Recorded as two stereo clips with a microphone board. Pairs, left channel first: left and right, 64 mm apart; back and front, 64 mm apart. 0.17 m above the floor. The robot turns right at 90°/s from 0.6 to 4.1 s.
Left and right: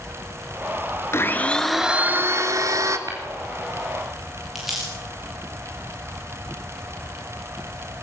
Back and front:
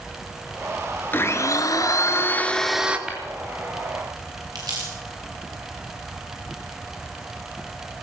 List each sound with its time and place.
1.1 s a blender: 130° left, 1.6 m; by 3.0 s 65° right, 1.6 m
3.1 s tapping: 75° right, 7 m; by 3.2 s 65° right, 7 m
4.5 s crumpling: 5° right, 6.5 m